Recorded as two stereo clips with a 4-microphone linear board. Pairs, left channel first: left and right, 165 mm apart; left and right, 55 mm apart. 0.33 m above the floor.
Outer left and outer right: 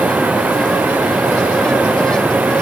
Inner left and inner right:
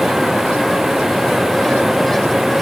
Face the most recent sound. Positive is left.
turn(degrees=-10)  # may be behind; listen again after turning